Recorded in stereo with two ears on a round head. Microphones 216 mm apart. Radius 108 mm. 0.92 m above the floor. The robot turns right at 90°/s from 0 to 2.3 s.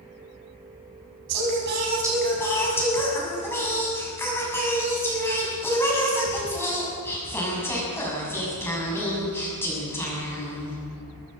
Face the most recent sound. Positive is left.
turn(degrees=10)